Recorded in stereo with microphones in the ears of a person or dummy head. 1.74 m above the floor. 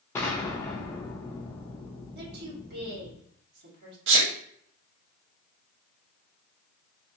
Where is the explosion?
10° left (ahead or behind), 0.5 m.